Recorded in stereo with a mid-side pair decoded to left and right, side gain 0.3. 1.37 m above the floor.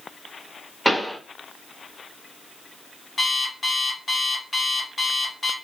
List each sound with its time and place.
0.8 s a pop: 5° left, 1.1 m
3.2 s an alarm clock: 45° left, 1.3 m